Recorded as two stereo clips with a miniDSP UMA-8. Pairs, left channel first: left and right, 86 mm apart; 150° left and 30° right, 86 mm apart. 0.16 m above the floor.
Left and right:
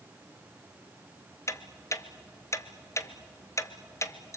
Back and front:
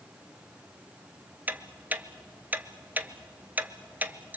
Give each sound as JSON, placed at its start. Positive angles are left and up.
{"t": 1.5, "sound": "ticking", "azimuth_deg": 40, "distance_m": 0.8}